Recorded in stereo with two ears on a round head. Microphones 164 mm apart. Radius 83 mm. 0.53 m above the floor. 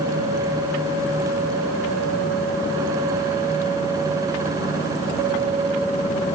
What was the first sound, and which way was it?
Only background noise.